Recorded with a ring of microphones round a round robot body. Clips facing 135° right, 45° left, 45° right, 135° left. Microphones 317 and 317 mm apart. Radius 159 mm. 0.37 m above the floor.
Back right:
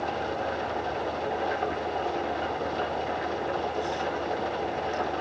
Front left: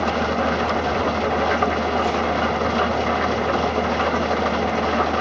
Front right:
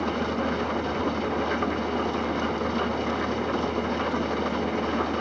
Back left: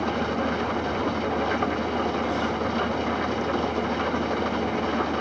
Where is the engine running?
45° left, 0.9 m.